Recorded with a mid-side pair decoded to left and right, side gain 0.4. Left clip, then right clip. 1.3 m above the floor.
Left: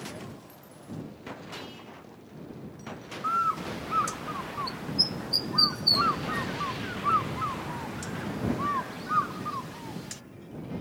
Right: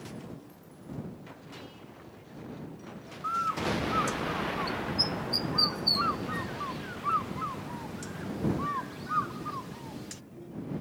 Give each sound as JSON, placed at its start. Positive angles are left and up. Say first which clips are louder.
{"t": 3.2, "sound": "a bird", "louder": "left 2 dB", "azimuth_deg": 25}